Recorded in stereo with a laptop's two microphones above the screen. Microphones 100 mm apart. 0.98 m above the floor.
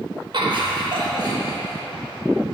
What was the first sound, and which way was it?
Laughter, 55° right (ahead or behind).